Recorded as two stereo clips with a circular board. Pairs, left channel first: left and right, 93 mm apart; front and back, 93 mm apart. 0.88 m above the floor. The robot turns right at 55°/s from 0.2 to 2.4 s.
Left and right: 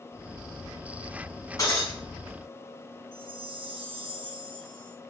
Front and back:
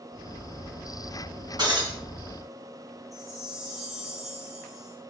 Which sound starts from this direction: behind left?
Breaking glass, at 1.6 s.